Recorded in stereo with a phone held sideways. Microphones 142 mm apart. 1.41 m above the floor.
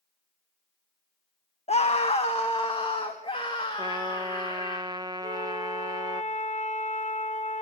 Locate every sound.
1.7 s a scream: 45° left (ahead or behind), 1.2 m; by 4.8 s 35° left (ahead or behind), 3.5 m
3.8 s a trumpet: 30° right (ahead or behind), 1.0 m
5.2 s a flute: 60° left (ahead or behind), 3 m